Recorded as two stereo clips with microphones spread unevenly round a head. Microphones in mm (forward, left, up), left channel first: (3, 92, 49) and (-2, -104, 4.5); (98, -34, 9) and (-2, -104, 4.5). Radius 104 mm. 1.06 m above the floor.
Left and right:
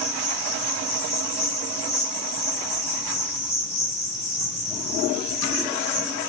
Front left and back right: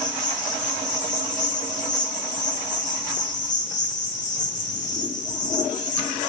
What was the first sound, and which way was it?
An insect, 25° left.